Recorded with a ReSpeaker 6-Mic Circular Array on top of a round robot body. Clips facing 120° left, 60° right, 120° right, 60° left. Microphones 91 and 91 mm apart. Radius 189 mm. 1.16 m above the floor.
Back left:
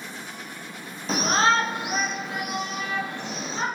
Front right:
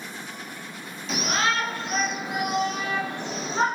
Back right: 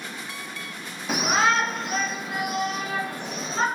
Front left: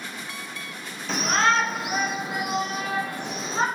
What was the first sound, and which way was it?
A shout, 165° left.